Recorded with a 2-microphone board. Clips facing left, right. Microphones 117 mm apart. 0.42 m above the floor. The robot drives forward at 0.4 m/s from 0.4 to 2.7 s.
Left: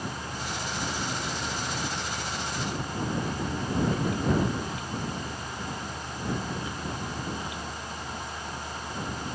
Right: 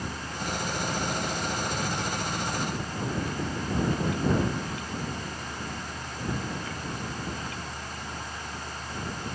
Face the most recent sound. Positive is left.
No sound to turn to.